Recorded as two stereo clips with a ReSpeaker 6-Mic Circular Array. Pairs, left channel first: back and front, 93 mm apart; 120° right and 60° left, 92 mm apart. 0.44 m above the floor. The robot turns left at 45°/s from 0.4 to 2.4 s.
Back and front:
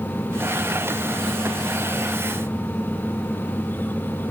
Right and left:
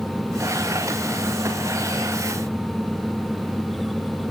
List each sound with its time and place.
Only background noise.